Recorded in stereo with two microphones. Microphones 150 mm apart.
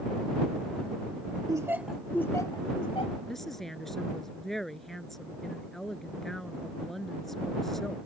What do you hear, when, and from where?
1.5 s laughter: 25° right (ahead or behind); by 3.2 s 45° left (ahead or behind)
3.3 s a woman speaking: centre (ahead or behind)